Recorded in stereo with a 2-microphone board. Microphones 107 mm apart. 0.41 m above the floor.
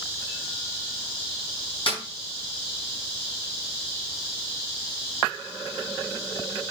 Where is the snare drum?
50° left (ahead or behind), 4.5 m.